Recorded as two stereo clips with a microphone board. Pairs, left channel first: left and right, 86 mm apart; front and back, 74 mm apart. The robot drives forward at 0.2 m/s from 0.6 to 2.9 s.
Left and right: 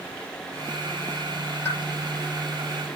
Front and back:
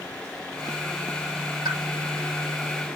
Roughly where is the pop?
Behind left.